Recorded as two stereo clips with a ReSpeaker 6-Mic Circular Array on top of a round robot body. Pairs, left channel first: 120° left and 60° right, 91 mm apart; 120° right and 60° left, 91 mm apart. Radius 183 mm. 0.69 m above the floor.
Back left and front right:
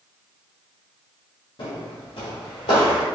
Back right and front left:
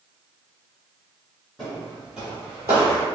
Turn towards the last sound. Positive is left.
turn(degrees=90)